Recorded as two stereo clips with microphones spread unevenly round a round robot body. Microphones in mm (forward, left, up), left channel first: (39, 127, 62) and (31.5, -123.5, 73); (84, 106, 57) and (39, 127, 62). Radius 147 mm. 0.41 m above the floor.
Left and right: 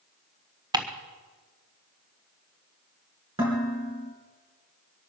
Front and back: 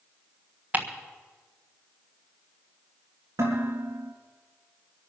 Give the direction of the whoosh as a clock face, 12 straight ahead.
No whoosh in this recording.